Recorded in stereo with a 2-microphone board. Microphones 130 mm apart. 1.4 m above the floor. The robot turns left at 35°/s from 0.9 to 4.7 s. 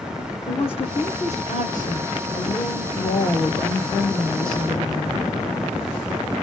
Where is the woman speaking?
130° left, 3 m; by 5.3 s straight ahead, 3 m.